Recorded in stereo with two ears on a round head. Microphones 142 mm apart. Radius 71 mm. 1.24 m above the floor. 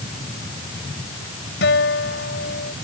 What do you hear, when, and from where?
1.6 s a guitar: 80° left